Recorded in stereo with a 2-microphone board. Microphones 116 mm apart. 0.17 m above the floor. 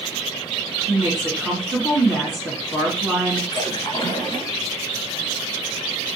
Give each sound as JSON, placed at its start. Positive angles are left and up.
{"t": 0.9, "sound": "a woman speaking", "side_deg": -5, "distance_m": 1.9}
{"t": 3.5, "sound": "a splash", "side_deg": 40, "distance_m": 1.4}